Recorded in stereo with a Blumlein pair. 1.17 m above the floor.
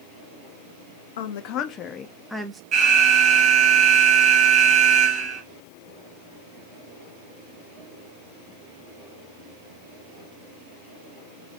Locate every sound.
1.2 s a woman speaking: 55° left, 0.7 m; by 2.6 s 10° right, 0.7 m
2.7 s an alarm: 35° right, 1.3 m